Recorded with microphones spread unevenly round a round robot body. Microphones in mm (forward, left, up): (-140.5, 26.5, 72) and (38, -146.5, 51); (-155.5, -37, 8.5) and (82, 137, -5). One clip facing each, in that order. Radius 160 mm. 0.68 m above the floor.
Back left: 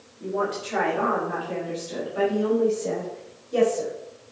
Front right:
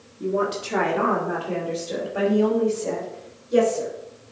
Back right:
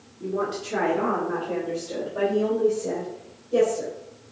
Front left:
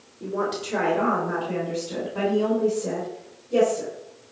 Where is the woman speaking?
70° right, 2 m; by 3.9 s 35° right, 3.5 m.